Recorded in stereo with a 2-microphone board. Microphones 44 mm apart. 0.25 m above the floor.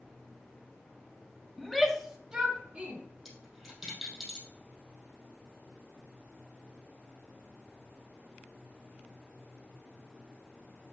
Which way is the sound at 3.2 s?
10° right (ahead or behind).